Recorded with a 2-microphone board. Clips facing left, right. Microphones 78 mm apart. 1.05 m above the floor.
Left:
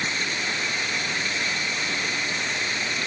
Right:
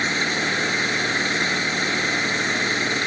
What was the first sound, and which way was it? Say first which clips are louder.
An engine running: right 5 dB; 45° right (ahead or behind).